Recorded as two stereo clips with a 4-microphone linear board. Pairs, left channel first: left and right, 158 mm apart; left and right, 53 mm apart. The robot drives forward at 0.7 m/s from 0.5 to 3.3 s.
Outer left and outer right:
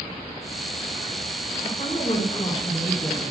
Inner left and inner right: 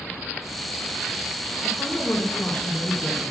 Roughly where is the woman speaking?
Left.